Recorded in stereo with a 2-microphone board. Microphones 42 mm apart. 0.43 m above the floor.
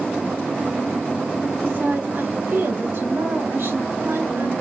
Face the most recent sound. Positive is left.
turn(degrees=-65)  # may be behind; listen again after turning